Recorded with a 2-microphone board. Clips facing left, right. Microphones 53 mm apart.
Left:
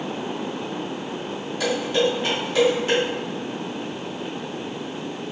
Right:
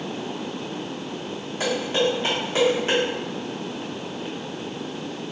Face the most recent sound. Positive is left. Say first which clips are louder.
# left 1 dB
turn(degrees=-30)  # may be behind; listen again after turning